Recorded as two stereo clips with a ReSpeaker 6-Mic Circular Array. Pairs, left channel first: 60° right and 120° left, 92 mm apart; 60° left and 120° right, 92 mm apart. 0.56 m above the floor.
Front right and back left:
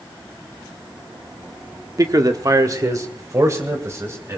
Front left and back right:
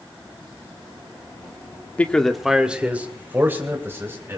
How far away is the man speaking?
About 1.0 m.